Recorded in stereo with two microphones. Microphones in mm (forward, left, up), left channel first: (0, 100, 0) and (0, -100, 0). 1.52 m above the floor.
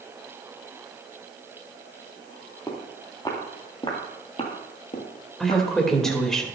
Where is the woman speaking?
5° left (ahead or behind), 2.5 m.